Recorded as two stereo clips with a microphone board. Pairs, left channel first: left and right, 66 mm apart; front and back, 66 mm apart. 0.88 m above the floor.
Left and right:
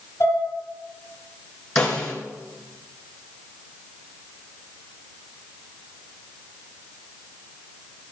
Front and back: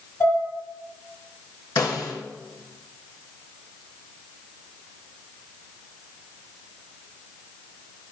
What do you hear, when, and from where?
0.2 s dishes clattering: 45° left, 6.5 m
1.8 s a snare drum: 15° left, 3 m